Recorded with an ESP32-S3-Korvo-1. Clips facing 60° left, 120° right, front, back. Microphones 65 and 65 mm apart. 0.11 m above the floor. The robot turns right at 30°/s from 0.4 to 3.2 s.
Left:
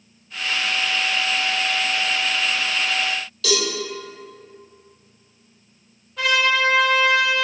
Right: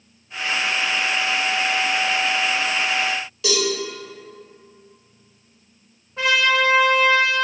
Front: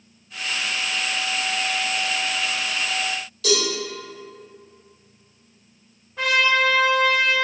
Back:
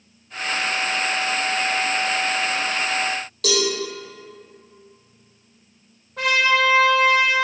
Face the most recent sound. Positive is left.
turn(degrees=-175)